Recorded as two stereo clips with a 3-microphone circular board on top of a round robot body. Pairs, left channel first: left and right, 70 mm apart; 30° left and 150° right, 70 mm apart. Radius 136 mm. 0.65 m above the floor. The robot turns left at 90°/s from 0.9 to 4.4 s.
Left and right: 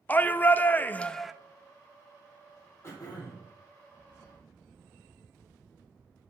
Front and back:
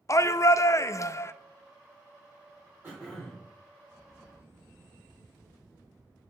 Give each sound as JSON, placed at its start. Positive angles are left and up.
{"t": 0.1, "sound": "a shout", "azimuth_deg": 35, "distance_m": 0.6}
{"t": 2.8, "sound": "throat clearing", "azimuth_deg": 150, "distance_m": 4.0}